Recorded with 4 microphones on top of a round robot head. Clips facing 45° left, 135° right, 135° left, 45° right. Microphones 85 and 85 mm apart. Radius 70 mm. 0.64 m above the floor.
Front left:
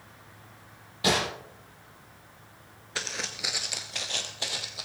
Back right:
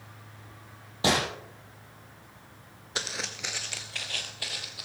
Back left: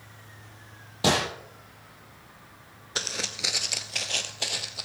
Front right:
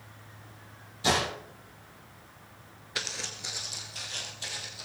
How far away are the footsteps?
About 0.6 m.